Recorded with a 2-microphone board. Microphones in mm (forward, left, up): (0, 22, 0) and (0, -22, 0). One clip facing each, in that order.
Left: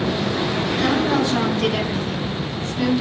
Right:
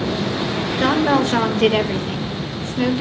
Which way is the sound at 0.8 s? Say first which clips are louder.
Right 4 dB; 55° right (ahead or behind).